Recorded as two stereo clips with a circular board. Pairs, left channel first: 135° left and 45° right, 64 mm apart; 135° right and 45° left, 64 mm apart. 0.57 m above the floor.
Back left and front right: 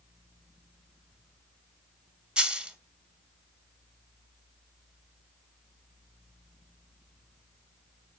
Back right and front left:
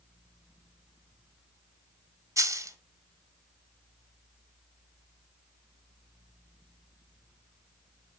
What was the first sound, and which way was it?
A dropped coin, 30° left.